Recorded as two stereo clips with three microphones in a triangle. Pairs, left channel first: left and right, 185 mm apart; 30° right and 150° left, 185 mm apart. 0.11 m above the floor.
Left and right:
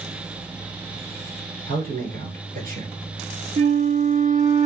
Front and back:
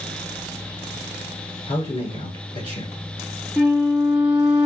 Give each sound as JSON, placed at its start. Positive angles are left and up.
{"t": 1.7, "sound": "a man speaking", "azimuth_deg": -90, "distance_m": 1.6}
{"t": 3.6, "sound": "a flute", "azimuth_deg": -125, "distance_m": 0.6}